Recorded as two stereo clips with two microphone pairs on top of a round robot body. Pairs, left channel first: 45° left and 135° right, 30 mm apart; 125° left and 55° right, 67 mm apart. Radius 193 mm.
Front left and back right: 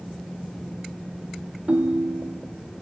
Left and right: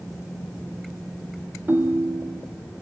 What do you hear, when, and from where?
1.7 s a ringtone: 110° right, 0.8 m